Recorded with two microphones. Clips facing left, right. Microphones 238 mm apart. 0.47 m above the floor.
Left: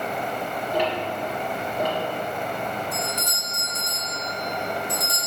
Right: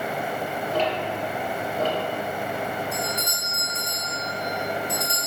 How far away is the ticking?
About 2 m.